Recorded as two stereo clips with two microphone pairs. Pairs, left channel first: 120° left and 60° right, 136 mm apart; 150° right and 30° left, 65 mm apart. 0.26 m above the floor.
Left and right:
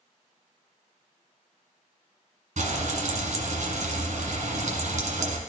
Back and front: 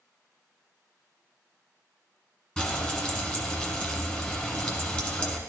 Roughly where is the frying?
Right.